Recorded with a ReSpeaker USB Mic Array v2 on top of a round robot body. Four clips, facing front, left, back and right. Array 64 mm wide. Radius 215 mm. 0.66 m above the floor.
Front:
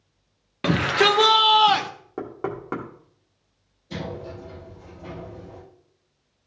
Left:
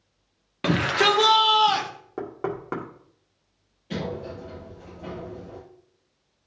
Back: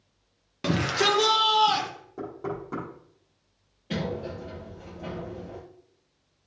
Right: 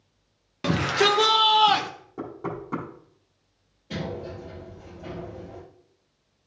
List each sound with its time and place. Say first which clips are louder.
0.6 s a shout: left 1 dB, front 5 dB; 30° left, 1.2 m; by 1.9 s 25° right, 1.3 m
2.2 s knocking: left 3 dB, front 3 dB; 40° left, 2 m
3.9 s a sliding door: left 1 dB, back 2 dB; 170° left, 5 m